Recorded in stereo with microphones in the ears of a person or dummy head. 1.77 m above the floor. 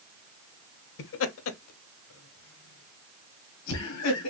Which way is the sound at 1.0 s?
65° left (ahead or behind).